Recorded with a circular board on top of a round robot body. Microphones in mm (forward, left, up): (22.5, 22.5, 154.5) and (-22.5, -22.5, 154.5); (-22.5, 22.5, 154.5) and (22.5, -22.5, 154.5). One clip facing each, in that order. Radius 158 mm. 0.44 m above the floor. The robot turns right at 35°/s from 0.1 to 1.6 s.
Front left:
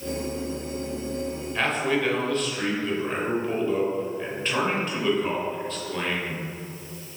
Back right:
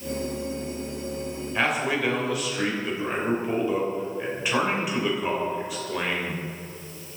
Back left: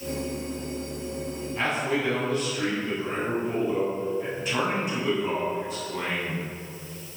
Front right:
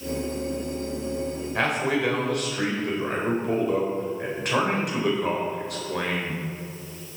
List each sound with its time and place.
1.6 s a man speaking: 55° right, 3 m